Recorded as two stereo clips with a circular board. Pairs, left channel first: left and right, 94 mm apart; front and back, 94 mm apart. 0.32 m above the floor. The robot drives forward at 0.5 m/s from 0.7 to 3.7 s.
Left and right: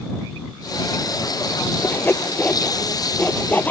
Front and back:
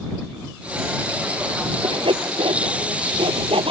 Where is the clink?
I don't hear a clink.